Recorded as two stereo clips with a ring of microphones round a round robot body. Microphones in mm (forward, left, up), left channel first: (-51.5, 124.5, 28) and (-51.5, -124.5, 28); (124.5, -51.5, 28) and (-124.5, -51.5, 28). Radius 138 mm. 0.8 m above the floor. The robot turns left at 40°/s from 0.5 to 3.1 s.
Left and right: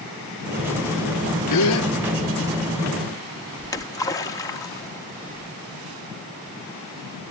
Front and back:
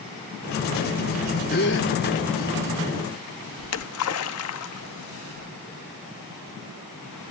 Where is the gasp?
60° left, 0.8 m; by 1.9 s 45° left, 0.8 m.